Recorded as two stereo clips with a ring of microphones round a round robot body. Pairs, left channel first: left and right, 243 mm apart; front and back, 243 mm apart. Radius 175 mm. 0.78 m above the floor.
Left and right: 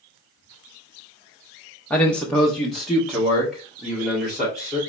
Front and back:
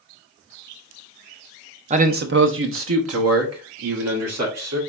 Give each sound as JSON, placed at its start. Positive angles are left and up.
{"t": 1.9, "sound": "a man speaking", "azimuth_deg": 165, "distance_m": 0.6}